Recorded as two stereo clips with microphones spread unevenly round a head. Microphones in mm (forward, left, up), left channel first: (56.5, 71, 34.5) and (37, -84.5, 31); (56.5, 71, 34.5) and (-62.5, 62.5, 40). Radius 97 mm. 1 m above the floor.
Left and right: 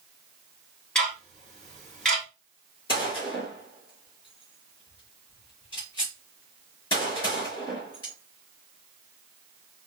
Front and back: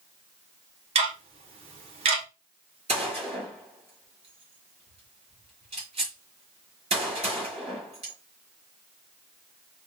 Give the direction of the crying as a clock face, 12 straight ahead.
I don't hear crying.